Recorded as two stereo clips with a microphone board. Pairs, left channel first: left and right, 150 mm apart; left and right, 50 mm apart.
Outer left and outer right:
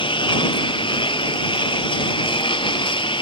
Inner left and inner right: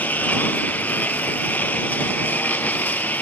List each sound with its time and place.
0.0 s a lawn mower: 35° left (ahead or behind)